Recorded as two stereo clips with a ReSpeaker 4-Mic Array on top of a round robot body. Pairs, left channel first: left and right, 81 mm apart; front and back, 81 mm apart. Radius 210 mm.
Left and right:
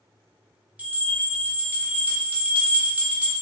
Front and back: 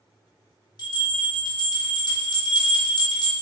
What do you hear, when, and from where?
0.8 s a bell: 20° right, 1.1 m